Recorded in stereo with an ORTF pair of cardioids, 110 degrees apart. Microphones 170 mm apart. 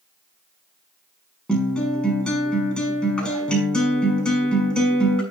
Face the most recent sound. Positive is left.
turn(degrees=5)